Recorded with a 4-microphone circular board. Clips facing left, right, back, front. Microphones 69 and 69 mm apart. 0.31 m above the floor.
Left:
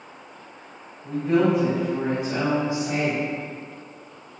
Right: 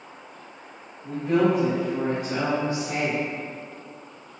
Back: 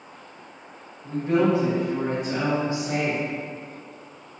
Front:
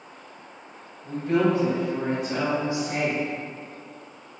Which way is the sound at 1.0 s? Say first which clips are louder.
Left 1 dB, back 1 dB; straight behind.